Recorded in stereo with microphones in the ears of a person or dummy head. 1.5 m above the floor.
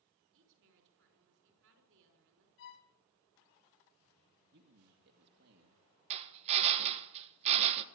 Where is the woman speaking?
75° right (ahead or behind), 5.5 m.